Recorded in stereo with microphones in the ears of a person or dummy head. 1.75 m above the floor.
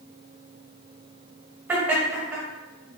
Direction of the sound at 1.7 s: 15° right (ahead or behind).